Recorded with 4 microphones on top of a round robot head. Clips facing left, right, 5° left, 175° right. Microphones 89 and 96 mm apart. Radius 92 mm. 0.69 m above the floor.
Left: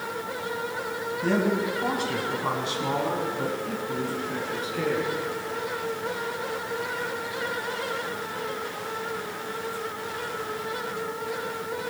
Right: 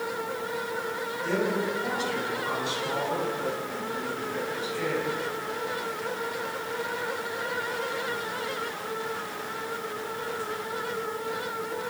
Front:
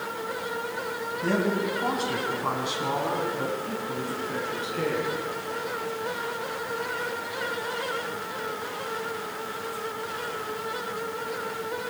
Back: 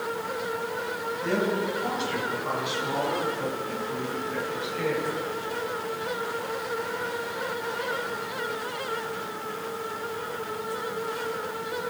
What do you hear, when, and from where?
1.2 s a man speaking: 50° left, 5.5 m